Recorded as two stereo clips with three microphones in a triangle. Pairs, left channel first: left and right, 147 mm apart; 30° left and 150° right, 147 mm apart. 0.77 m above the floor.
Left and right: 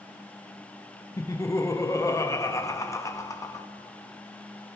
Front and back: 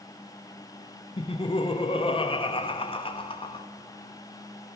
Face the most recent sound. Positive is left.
turn(degrees=35)